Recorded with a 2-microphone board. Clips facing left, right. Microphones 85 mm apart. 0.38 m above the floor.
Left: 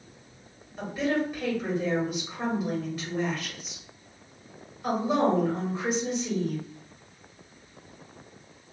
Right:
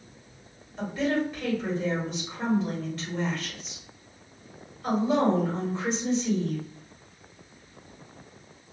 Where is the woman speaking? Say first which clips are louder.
Right 1 dB; 10° left (ahead or behind), 1.7 m.